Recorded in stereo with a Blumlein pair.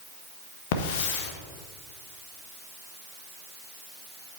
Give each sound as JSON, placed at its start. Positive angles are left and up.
{"t": 0.7, "sound": "a hiss", "azimuth_deg": 50, "distance_m": 1.1}